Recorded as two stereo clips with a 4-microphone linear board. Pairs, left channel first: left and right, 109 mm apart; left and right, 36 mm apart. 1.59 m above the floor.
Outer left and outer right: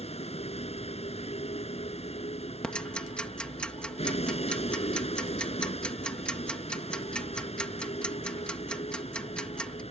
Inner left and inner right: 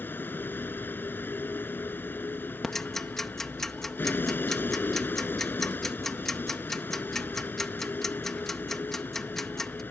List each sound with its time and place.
0.0 s a vehicle: 75° left (ahead or behind)
2.6 s ticking: 10° left (ahead or behind)